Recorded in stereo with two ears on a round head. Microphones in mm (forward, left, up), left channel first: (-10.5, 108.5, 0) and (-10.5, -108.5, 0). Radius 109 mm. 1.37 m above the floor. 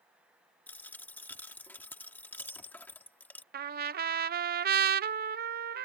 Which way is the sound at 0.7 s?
5° left (ahead or behind).